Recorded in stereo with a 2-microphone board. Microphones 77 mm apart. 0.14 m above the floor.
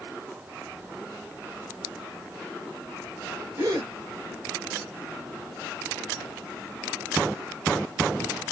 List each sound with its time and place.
3.6 s a gasp: 35° right (ahead or behind), 1.4 m